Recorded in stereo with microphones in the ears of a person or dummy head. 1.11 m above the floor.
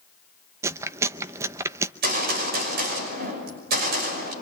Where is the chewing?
15° right (ahead or behind), 0.8 m.